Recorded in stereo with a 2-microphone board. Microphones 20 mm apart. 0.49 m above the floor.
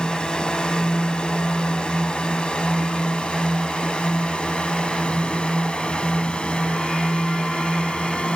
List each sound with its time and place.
0.0 s a drone: 50° left (ahead or behind); by 8.4 s 70° left (ahead or behind)